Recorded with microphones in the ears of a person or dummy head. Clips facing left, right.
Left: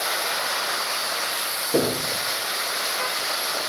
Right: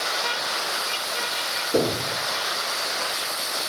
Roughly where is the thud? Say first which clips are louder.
Even; centre.